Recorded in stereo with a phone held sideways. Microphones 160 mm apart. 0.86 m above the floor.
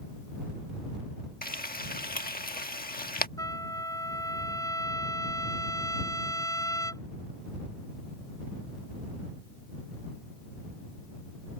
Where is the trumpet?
20° left (ahead or behind).